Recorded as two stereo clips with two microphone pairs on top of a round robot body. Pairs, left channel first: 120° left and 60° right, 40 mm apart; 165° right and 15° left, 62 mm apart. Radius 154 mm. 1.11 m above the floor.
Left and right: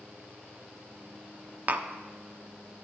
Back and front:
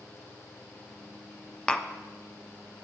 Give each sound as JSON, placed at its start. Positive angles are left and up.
{"t": 1.7, "sound": "tapping", "azimuth_deg": -90, "distance_m": 0.6}